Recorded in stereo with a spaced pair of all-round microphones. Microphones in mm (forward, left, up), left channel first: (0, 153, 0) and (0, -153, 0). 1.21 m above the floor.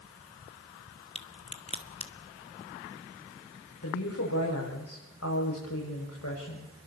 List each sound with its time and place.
1.1 s a crack: 20° left (ahead or behind), 1.5 m
3.8 s a woman speaking: 55° left (ahead or behind), 6.5 m